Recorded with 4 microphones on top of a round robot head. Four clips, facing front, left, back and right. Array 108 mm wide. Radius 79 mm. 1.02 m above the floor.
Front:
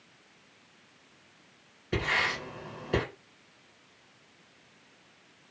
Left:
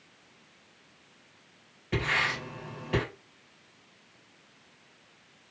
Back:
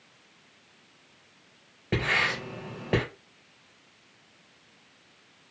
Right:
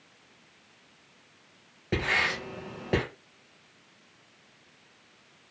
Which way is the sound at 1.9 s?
150° right.